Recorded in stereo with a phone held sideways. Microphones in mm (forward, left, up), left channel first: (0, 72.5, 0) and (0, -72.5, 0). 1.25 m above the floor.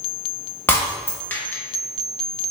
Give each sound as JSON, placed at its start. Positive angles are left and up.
{"t": 0.7, "sound": "breaking glass", "side_deg": 15, "distance_m": 0.9}